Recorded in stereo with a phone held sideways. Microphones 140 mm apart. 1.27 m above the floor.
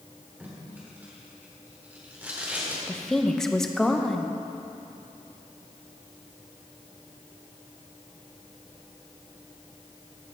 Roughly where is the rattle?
I don't hear a rattle.